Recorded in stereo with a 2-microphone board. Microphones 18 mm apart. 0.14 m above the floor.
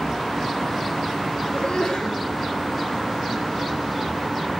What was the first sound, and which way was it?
A sneeze, 65° left (ahead or behind).